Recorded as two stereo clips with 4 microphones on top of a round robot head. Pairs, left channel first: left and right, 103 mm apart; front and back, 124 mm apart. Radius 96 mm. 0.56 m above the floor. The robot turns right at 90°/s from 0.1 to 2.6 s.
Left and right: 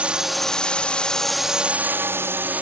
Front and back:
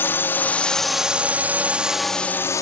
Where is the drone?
35° right; by 2.6 s 30° right.